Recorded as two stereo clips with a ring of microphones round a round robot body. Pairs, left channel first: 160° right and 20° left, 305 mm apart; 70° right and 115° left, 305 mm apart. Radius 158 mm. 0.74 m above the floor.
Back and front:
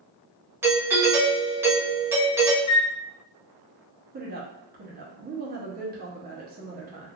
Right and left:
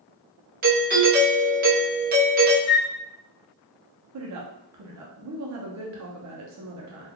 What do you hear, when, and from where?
0.6 s a doorbell: 95° left, 0.9 m
2.7 s a flute: 115° right, 0.5 m
4.1 s a woman speaking: 80° left, 0.8 m